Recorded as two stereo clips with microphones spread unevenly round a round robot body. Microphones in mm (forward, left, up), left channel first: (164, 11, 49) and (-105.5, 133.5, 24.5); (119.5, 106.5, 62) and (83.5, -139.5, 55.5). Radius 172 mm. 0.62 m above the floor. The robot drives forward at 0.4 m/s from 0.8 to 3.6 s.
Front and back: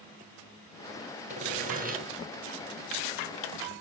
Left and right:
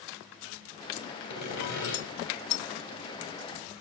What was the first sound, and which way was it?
Sawing, 90° left.